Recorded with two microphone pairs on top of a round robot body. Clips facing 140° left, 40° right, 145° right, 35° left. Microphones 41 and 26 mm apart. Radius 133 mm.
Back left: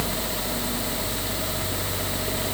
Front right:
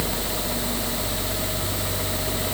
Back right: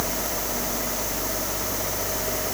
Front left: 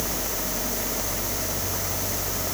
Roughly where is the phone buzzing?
No phone buzzing in this recording.